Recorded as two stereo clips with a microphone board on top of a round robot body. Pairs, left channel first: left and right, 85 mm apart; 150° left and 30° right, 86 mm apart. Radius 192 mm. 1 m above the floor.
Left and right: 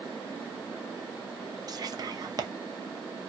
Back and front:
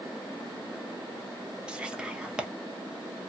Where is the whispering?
105° right, 1.0 m.